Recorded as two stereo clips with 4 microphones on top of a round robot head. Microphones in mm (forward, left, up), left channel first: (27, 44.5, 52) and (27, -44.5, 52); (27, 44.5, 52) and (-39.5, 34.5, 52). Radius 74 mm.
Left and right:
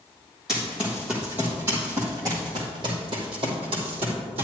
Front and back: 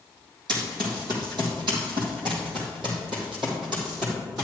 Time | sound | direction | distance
0.5 | running footsteps | 175° right | 2.5 m